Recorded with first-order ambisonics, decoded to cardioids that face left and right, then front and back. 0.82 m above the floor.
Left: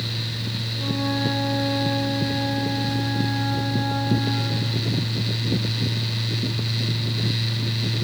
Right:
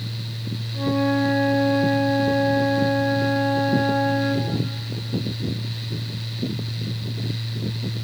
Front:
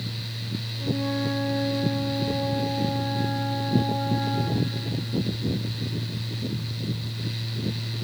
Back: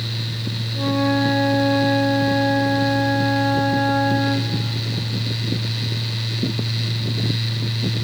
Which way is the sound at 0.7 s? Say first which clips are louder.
Right 5 dB, back 9 dB; 155° right.